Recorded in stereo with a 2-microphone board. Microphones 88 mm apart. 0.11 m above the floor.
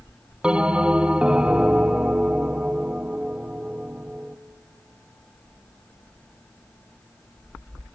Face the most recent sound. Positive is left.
turn(degrees=-10)  # may be behind; listen again after turning